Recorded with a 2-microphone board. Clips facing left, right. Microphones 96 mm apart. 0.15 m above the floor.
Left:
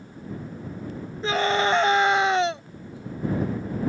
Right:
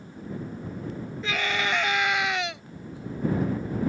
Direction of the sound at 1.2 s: 35° left (ahead or behind).